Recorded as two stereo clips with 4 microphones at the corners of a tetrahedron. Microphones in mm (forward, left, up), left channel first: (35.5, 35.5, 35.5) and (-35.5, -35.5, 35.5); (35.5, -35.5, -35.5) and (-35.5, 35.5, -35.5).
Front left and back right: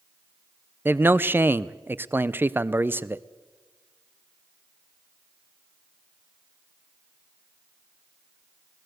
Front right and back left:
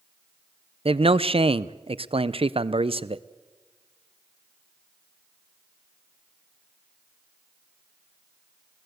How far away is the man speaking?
About 0.6 m.